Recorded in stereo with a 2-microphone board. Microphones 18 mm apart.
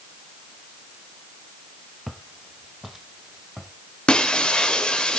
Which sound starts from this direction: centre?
Footsteps, at 2.1 s.